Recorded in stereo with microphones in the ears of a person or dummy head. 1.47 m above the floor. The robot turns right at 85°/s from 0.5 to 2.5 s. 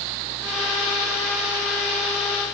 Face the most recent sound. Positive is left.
No sound to turn to.